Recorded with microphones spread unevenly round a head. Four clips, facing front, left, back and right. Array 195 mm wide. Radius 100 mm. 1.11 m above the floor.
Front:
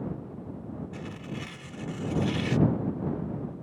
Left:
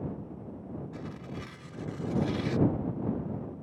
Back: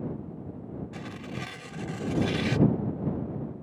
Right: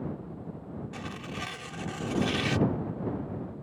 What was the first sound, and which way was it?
Tearing paper, 135° right.